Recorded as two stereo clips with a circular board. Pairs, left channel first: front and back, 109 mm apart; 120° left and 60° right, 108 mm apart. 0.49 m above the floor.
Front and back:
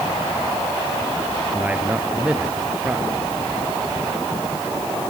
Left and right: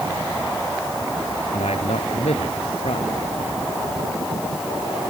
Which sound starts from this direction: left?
A man speaking, at 1.5 s.